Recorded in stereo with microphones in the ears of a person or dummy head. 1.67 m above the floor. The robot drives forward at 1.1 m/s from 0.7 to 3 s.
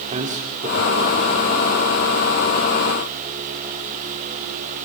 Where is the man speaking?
40° right (ahead or behind), 4 m; by 1.6 s 30° right (ahead or behind), 4.5 m.